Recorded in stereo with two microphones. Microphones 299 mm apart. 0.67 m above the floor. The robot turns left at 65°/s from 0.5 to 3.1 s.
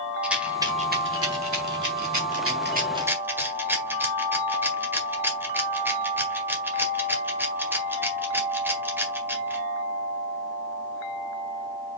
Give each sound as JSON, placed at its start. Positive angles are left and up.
{"t": 0.2, "sound": "a rattle", "side_deg": -5, "distance_m": 1.8}